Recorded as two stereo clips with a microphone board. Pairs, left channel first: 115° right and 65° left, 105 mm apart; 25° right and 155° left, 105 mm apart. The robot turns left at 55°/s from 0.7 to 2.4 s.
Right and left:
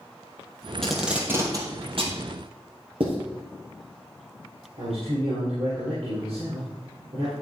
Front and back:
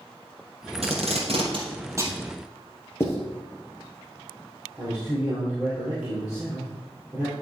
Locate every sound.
0.8 s tape being pulled: 160° left, 2.5 m; by 2.2 s 90° left, 2.5 m
3.0 s writing: 40° left, 3 m
4.8 s a man speaking: 75° left, 4 m